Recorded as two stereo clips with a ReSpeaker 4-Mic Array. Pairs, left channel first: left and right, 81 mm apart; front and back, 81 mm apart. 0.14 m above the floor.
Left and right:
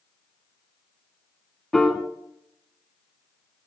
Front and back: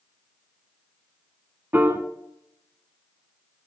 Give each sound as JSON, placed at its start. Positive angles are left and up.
{"t": 1.7, "sound": "a piano", "azimuth_deg": 165, "distance_m": 1.0}